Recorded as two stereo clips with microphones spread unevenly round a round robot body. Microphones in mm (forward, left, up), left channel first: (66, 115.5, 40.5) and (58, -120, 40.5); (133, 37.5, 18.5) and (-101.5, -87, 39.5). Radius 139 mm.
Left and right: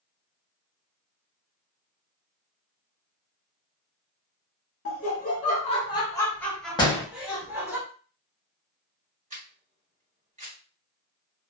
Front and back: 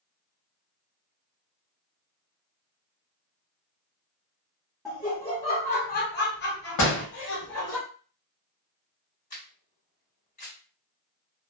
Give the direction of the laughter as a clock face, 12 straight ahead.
8 o'clock.